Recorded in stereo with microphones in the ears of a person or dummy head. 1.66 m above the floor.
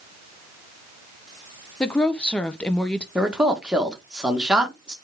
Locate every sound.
1.8 s a woman speaking: 5° left (ahead or behind), 0.7 m
3.1 s a man speaking: centre (ahead or behind), 1.5 m